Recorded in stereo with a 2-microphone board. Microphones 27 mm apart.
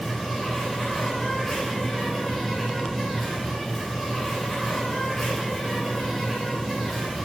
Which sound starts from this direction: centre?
An insect, at 0.0 s.